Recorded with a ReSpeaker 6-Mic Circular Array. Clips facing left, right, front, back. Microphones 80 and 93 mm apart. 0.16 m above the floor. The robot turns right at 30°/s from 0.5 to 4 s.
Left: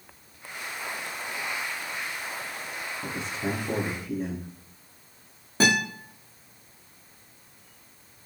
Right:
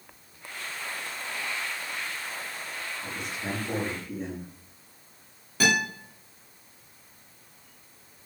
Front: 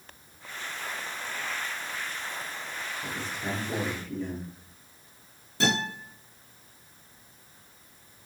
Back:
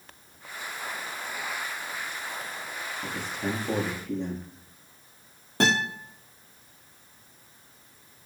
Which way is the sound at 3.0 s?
140° left.